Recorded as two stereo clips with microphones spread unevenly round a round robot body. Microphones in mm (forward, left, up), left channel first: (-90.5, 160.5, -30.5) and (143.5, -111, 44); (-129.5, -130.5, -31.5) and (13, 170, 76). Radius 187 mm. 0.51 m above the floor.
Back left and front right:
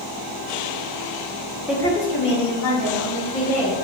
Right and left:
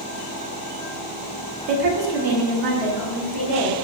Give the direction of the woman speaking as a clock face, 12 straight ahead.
10 o'clock.